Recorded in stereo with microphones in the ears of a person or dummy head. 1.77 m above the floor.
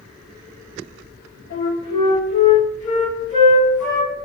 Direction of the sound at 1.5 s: 40° left (ahead or behind).